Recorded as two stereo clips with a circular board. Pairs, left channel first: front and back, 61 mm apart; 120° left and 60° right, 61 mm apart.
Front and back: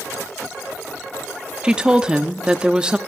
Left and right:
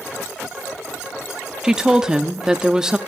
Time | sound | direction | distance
1.6 | a woman speaking | 125° right | 0.8 m